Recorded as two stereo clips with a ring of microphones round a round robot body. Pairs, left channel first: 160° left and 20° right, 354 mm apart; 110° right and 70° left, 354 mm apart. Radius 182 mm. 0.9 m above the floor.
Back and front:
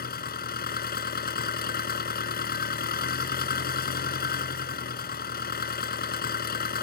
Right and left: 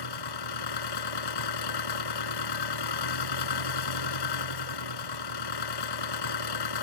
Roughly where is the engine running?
Behind right.